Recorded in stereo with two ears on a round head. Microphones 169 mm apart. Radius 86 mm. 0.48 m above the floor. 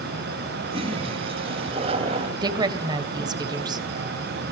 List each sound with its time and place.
0.7 s a toilet flushing: 30° right (ahead or behind), 2.5 m
2.4 s a woman speaking: 25° right (ahead or behind), 2.5 m